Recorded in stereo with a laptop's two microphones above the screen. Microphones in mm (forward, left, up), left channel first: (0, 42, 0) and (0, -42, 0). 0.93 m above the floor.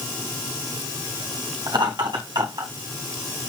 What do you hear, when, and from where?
1.7 s laughter: 70° right (ahead or behind), 4 m; by 2.7 s 60° right (ahead or behind), 4 m